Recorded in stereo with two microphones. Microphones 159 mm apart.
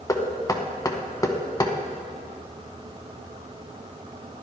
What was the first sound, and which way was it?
Knocking, 20° left (ahead or behind).